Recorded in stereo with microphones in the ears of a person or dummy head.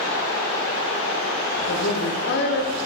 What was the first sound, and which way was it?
A woman speaking, 50° left (ahead or behind).